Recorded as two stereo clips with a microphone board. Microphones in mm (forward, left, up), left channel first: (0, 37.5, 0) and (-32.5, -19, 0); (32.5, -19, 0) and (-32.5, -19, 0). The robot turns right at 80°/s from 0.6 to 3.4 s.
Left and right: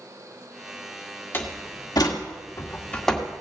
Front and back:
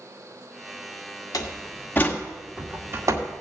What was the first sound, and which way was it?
A door slam, 5° left.